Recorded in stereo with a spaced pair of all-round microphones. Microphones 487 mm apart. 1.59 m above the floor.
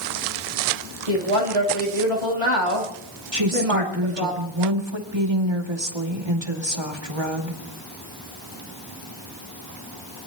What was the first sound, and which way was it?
A woman speaking, 90° right.